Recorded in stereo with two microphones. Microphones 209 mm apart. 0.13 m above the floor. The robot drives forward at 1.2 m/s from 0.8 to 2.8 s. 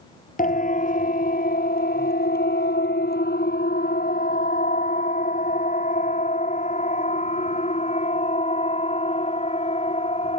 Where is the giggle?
No giggle in this recording.